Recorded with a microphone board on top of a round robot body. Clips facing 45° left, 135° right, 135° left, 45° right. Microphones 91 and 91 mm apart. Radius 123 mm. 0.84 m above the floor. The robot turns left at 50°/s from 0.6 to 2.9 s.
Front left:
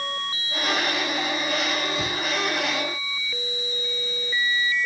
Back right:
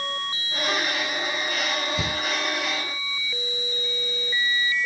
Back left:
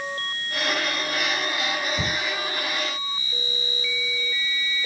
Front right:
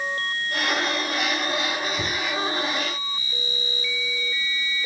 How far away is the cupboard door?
About 5.5 m.